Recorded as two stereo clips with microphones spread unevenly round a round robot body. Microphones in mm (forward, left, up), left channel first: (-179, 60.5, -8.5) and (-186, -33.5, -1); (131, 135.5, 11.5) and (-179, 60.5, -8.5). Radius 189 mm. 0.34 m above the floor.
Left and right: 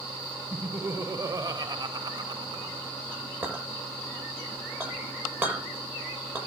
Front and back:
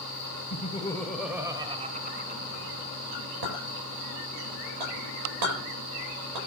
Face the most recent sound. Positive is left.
turn(degrees=-170)